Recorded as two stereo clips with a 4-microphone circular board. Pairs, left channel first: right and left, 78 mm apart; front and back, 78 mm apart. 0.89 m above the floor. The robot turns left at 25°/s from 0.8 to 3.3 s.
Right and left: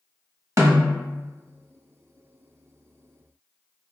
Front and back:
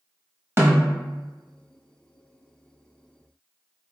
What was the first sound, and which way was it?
A snare drum, 130° left.